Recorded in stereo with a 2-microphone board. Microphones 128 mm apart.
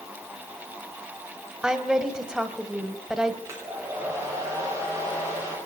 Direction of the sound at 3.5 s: 25° right (ahead or behind).